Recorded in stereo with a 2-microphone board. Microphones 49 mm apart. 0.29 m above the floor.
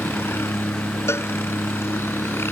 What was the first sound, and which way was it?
A helicopter, 55° left (ahead or behind).